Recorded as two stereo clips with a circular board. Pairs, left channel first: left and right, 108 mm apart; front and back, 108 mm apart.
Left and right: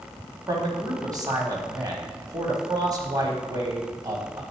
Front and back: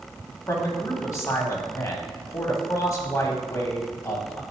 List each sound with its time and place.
0.5 s a man speaking: 50° right, 1.4 m